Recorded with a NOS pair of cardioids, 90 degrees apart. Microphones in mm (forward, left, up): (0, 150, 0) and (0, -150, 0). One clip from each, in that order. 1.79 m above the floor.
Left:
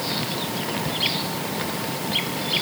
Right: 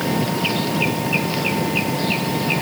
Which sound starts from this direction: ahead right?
An engine running, at 0.0 s.